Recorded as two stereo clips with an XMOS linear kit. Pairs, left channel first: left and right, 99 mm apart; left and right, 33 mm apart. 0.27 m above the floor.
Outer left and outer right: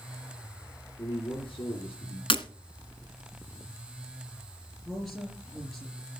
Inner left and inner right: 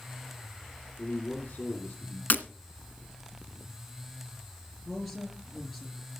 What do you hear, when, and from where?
1.0 s a man speaking: 70° left (ahead or behind), 2.5 m
2.3 s breaking glass: 60° left (ahead or behind), 1.3 m
4.8 s a woman speaking: centre (ahead or behind), 4.5 m